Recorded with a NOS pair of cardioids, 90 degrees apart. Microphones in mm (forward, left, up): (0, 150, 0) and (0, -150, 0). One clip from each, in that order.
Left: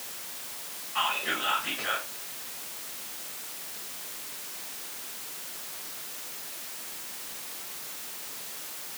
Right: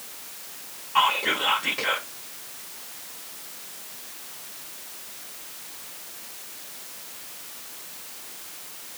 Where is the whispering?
55° right, 0.7 m.